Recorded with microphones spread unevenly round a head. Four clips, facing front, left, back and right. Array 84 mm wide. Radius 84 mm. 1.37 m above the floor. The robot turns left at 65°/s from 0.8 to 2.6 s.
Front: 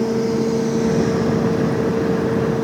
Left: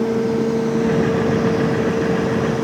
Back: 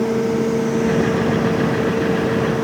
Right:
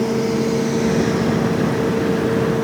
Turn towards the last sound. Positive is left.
No sound to turn to.